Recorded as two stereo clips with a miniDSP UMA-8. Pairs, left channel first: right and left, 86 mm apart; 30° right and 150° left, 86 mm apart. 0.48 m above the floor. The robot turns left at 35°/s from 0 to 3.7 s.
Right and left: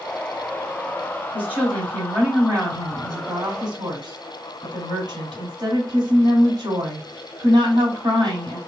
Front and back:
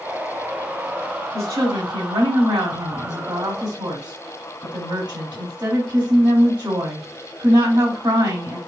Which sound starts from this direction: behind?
A woman speaking, at 1.3 s.